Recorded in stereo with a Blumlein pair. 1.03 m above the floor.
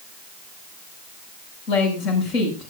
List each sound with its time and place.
1.7 s a woman speaking: 40° left, 7.5 m